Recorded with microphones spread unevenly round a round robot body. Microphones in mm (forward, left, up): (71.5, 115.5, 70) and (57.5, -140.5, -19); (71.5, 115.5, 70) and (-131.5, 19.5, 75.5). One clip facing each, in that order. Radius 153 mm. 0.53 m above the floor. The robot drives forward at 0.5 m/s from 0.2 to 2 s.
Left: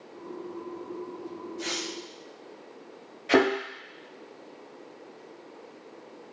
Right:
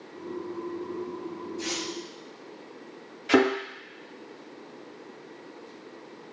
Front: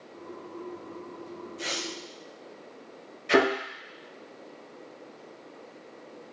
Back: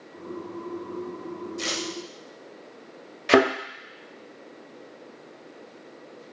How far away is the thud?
About 1.1 m.